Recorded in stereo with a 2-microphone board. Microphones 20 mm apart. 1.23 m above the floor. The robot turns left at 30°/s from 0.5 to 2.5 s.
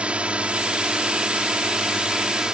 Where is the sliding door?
No sliding door in this recording.